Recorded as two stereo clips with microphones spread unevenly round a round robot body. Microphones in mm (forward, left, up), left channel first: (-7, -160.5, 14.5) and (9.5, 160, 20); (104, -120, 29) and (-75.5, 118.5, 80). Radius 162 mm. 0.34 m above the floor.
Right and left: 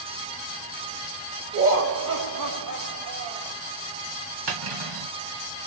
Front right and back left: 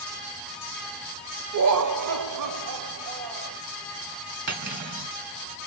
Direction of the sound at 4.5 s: 70° left.